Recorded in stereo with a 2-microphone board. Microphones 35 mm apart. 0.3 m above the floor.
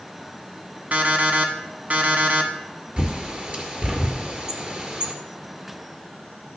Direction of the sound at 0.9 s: 45° right (ahead or behind).